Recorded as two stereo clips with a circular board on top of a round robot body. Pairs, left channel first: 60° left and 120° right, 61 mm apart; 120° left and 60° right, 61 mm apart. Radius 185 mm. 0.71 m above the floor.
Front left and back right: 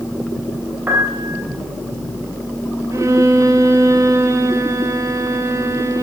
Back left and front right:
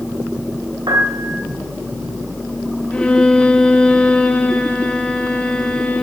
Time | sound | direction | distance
0.9 | a piano | 65° right | 3 m
2.9 | a violin | 165° right | 0.6 m